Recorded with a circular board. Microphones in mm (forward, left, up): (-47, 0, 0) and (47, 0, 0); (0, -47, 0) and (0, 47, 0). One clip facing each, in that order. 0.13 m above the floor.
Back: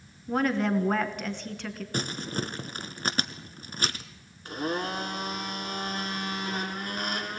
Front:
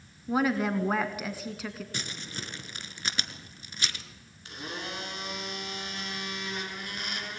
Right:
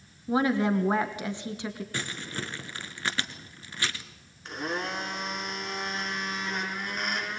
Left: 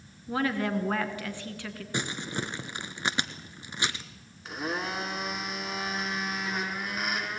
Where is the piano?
No piano in this recording.